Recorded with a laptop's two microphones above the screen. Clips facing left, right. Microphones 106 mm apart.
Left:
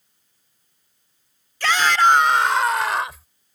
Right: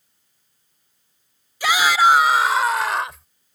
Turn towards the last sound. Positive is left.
turn(degrees=0)  # may be behind; listen again after turning